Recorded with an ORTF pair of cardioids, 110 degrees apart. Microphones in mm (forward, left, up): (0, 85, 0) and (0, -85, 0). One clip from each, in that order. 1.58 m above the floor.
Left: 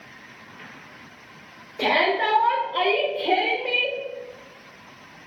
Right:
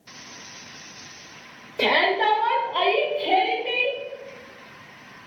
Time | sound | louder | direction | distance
1.8 | a shout | right 1 dB | 20° right | 0.7 m